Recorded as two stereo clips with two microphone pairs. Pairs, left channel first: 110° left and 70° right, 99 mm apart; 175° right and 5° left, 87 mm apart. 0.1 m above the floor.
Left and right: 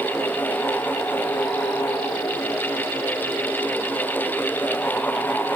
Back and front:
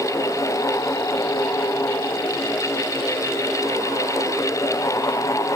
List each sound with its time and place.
Only background noise.